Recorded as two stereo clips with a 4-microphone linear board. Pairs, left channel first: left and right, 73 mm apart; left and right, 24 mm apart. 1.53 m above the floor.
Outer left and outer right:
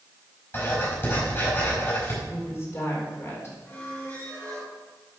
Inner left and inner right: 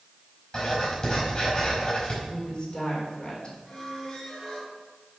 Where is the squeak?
20° left (ahead or behind), 4 m.